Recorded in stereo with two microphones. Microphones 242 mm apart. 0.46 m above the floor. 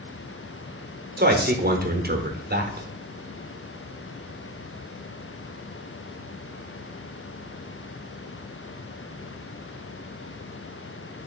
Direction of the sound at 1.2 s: 40° right (ahead or behind).